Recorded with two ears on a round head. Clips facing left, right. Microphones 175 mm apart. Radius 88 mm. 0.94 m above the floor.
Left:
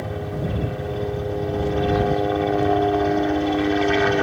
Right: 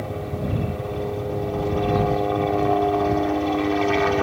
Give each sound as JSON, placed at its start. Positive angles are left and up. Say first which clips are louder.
{"t": 0.0, "sound": "a helicopter", "louder": "left 1 dB", "side_deg": 5}